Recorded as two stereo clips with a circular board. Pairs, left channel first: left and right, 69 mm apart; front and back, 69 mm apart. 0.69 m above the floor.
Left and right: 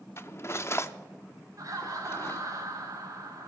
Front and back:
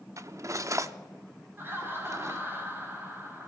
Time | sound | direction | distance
0.2 | cutlery clinking | 140° left | 0.6 m
1.6 | laughter | 125° right | 4 m